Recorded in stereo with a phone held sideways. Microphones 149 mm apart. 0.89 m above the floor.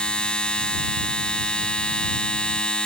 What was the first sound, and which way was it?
A machine running, 5° left (ahead or behind).